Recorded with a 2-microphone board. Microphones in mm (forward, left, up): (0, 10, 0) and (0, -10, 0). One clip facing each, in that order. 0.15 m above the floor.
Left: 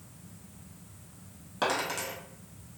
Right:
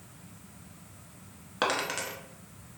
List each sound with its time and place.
1.6 s a dropped coin: 25° right (ahead or behind), 0.7 m